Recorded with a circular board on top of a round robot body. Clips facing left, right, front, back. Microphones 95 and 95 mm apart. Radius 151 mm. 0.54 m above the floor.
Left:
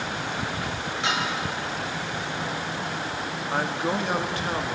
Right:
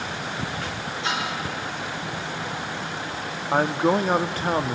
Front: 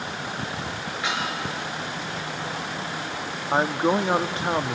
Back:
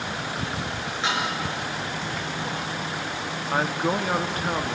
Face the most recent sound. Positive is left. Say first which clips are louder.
# right 7 dB, front 3 dB
turn(degrees=-55)